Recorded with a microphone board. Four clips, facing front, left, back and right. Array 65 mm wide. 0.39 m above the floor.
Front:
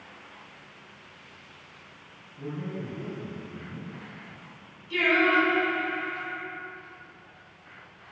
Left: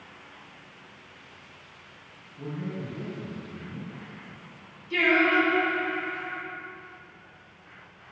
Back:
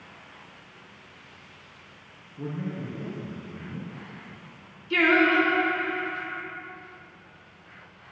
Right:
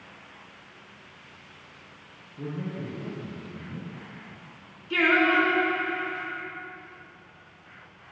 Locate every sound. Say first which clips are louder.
2.4 s a man speaking: right 1 dB, back 2 dB; 125° right, 4.5 m
4.9 s singing: right 1 dB, back 2 dB; 135° right, 3.5 m